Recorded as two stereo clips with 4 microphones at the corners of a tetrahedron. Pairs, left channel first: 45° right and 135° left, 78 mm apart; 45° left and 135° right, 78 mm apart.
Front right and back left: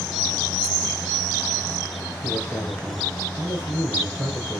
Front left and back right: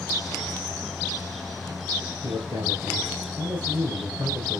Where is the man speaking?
140° right, 4 m.